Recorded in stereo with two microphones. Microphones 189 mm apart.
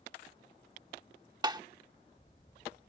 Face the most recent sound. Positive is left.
turn(degrees=-20)  # may be behind; listen again after turning